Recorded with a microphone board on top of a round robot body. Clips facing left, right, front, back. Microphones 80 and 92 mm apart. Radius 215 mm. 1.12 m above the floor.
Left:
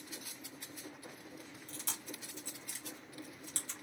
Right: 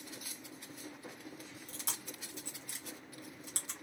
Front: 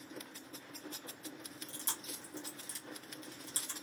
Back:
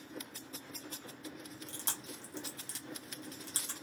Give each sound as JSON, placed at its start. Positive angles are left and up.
{"t": 1.7, "sound": "chewing", "azimuth_deg": -160, "distance_m": 1.3}